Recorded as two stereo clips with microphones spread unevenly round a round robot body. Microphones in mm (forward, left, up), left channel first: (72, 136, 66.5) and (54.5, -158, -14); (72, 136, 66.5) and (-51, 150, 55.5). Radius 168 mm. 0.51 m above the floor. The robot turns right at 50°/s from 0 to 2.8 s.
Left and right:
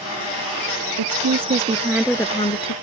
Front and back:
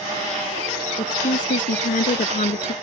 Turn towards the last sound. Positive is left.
turn(degrees=35)